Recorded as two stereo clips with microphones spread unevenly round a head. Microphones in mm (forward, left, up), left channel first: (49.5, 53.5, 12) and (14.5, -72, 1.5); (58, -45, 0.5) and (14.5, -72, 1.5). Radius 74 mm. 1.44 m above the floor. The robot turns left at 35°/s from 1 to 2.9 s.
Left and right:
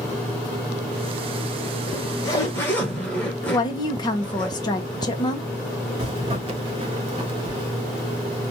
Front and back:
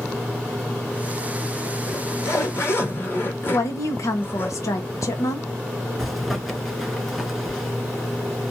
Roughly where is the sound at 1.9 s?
Ahead left.